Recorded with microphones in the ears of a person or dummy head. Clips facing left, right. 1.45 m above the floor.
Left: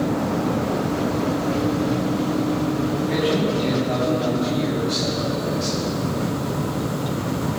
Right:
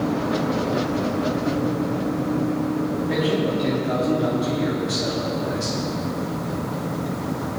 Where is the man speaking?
5° right (ahead or behind), 4 m; by 5.8 s 25° right (ahead or behind), 5 m.